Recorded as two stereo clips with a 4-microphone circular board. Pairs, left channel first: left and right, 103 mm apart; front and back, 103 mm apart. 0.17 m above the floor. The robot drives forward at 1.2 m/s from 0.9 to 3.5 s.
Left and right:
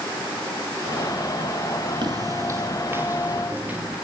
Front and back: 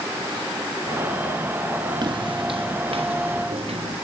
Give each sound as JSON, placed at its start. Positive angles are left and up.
{"t": 2.0, "sound": "footsteps", "azimuth_deg": -135, "distance_m": 3.0}